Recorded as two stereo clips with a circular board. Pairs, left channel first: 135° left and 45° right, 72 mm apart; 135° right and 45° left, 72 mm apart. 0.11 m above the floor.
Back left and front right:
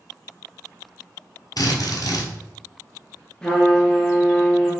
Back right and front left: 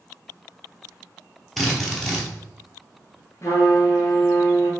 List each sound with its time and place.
1.6 s a drill: 135° left, 0.9 m
3.4 s a trumpet: 150° right, 0.9 m